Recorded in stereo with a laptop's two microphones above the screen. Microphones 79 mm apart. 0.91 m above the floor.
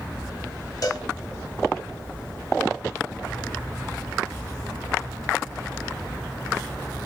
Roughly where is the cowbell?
Left.